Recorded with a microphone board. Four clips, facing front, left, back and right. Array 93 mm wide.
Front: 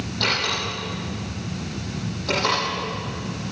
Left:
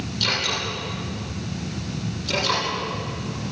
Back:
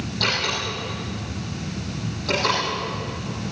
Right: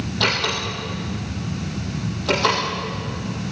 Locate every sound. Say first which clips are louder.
0.2 s a door slam: right 4 dB, front 1 dB; 90° right, 9.5 m